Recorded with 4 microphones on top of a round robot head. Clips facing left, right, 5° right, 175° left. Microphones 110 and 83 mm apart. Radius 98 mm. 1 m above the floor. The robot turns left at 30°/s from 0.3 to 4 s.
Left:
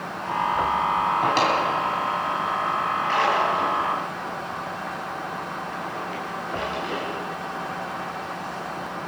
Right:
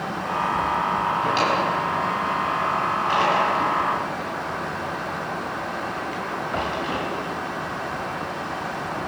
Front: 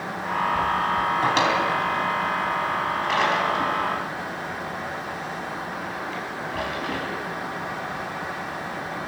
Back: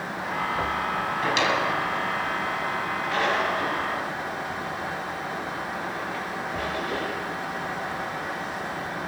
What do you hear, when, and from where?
1.2 s a drawer: 45° left, 4 m; by 7.1 s 40° right, 4 m